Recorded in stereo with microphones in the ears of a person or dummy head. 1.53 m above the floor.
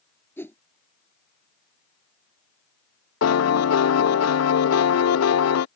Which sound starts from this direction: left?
A piano, at 3.2 s.